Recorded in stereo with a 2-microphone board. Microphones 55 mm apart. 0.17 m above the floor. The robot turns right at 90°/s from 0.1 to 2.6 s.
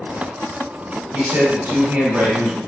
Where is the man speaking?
140° right, 1.6 m; by 2.6 s 10° right, 1.6 m.